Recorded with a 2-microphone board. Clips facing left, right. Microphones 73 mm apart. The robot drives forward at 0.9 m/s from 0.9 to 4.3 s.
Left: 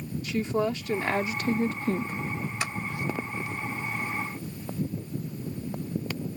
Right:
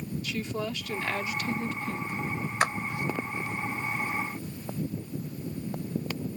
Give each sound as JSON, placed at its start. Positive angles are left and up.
{"t": 0.2, "sound": "a woman speaking", "side_deg": 30}
{"t": 2.6, "sound": "a clap", "side_deg": -50}